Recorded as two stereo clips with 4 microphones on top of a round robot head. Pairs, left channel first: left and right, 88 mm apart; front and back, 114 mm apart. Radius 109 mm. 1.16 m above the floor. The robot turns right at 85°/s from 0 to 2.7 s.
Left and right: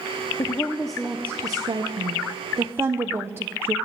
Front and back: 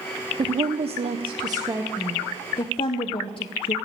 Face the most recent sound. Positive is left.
turn(degrees=-30)